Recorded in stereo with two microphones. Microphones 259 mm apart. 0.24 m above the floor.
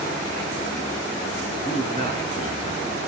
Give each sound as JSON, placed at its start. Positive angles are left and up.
{"t": 1.6, "sound": "a man speaking", "side_deg": 20, "distance_m": 3.5}